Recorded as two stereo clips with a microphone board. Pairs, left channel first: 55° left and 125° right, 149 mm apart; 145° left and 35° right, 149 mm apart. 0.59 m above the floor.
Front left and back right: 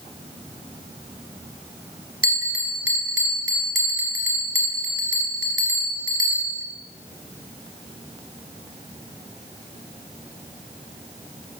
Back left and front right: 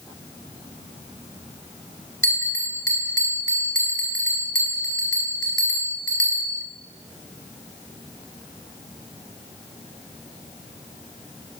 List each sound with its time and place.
2.2 s a bell: 70° left, 2.5 m